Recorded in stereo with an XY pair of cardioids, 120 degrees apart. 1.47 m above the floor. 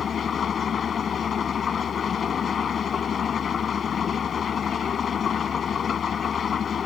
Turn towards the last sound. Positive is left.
turn(degrees=40)